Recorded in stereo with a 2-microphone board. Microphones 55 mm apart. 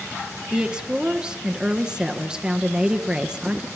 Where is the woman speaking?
15° right (ahead or behind), 2.5 m.